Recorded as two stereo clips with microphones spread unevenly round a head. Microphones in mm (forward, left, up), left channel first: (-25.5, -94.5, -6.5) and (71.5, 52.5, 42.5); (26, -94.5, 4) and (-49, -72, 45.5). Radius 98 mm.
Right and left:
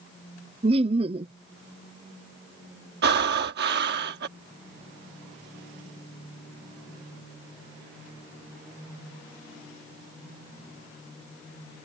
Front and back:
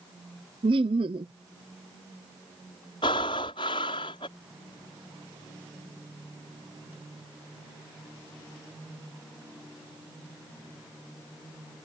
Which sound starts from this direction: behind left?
Laughter, at 0.6 s.